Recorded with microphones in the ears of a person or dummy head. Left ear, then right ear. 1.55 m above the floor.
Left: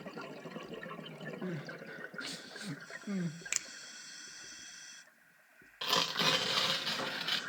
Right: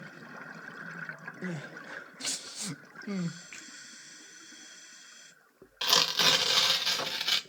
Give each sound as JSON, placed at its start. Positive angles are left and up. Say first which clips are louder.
{"t": 1.4, "sound": "crying", "louder": "right 5 dB", "side_deg": -40, "distance_m": 0.7}
{"t": 3.5, "sound": "a finger snap", "louder": "left 8 dB", "side_deg": 80, "distance_m": 1.3}
{"t": 5.8, "sound": "tearing paper", "louder": "right 6 dB", "side_deg": -25, "distance_m": 1.0}